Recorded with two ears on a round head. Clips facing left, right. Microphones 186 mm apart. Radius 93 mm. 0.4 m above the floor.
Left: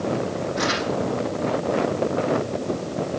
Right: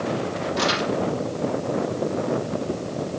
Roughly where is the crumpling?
Right.